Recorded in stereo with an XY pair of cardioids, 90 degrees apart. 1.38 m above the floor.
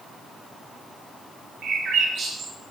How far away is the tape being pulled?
I don't hear tape being pulled.